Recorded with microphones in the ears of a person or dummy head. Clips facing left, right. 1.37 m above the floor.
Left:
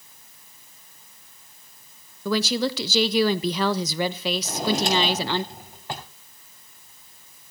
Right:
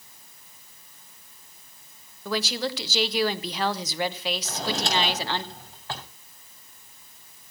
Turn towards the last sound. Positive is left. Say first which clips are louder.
# left 8 dB
turn(degrees=15)  # may be behind; listen again after turning